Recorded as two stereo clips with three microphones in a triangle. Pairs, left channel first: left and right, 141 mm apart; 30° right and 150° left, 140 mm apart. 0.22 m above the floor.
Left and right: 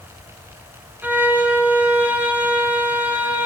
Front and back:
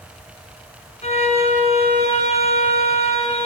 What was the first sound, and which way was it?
A violin, 15° right.